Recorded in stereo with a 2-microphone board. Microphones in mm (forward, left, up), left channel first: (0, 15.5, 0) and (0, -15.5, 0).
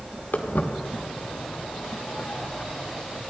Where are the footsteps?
80° left, 2 m; by 3.2 s 30° left (ahead or behind), 3 m.